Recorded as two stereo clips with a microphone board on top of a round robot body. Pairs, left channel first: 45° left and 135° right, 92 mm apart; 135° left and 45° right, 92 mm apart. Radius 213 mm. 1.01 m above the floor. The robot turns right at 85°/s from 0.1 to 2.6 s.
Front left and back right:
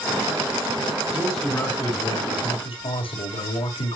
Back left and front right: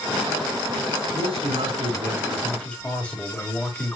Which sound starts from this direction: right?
A man speaking, at 1.1 s.